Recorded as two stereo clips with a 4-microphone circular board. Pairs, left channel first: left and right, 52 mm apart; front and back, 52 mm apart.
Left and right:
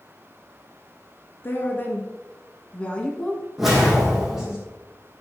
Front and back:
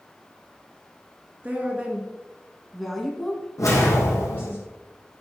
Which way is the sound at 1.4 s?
125° left.